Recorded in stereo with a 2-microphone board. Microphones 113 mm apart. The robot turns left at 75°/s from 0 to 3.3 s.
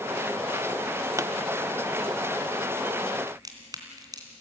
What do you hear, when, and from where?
1.2 s a pop: 30° right (ahead or behind), 0.8 m; by 1.3 s 20° right (ahead or behind), 0.8 m
3.3 s a crack: 35° right (ahead or behind), 3 m